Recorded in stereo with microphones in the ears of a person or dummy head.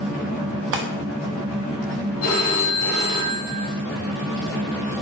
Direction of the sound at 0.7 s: 55° right (ahead or behind).